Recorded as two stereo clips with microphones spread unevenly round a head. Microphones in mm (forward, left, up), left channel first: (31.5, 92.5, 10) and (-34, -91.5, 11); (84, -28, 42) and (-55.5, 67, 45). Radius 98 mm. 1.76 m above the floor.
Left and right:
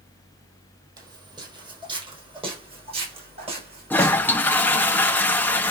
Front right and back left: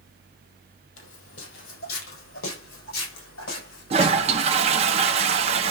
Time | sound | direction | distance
1.0 | footsteps | 40° right | 4 m
3.9 | a toilet flushing | 145° left | 0.7 m